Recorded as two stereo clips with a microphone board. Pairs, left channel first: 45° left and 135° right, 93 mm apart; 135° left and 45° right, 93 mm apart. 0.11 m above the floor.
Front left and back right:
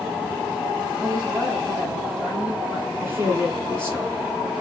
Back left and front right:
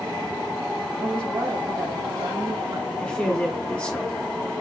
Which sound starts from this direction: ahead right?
A woman speaking, at 1.0 s.